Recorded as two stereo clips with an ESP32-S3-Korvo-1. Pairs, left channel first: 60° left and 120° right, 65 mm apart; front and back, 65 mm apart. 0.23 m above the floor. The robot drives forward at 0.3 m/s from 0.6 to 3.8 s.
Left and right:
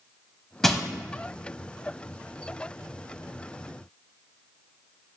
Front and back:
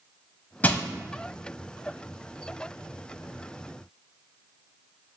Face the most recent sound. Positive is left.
turn(degrees=-170)